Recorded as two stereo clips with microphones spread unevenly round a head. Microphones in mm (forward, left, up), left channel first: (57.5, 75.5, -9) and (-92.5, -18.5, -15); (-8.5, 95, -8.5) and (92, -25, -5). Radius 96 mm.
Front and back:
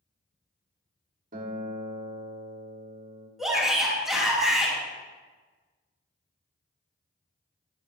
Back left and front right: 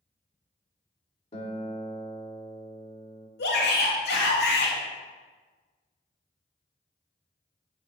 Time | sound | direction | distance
1.3 | a guitar | straight behind | 1.4 m
3.4 | a shout | 125° left | 3 m